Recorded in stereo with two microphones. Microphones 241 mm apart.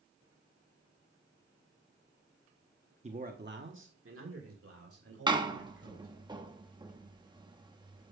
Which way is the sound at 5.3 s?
20° right (ahead or behind).